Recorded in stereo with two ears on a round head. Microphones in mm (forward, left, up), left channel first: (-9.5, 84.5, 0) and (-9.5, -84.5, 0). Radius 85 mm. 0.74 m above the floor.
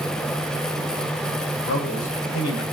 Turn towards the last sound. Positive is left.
turn(degrees=80)